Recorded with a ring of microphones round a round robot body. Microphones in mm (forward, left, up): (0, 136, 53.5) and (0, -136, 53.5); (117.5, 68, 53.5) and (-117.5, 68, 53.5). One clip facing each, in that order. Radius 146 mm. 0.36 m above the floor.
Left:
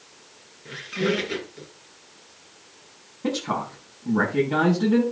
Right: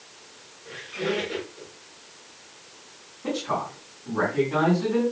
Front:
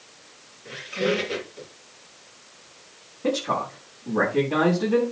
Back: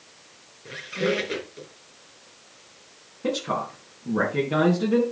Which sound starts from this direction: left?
A man speaking, at 3.2 s.